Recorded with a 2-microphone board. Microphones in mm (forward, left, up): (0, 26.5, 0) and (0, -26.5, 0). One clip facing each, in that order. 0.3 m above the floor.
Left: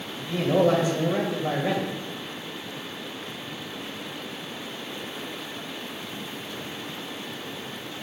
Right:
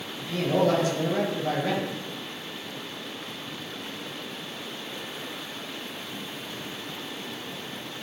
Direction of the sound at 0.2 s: 20° left (ahead or behind).